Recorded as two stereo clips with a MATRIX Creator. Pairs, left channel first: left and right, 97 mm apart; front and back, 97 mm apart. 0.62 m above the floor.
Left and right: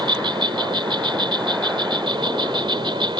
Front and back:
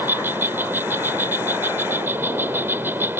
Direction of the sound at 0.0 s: 115° right.